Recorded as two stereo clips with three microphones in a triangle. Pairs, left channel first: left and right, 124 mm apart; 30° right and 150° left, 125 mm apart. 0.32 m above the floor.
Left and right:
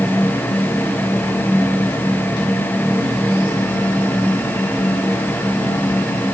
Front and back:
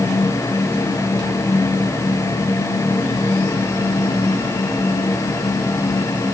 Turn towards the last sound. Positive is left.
No sound to turn to.